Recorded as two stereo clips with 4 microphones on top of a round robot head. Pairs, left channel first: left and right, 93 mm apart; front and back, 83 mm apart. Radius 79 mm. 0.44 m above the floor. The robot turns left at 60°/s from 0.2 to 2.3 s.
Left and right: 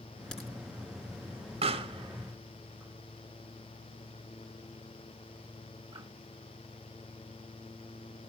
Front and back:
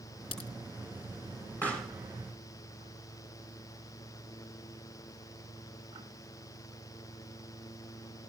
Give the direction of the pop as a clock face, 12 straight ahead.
2 o'clock.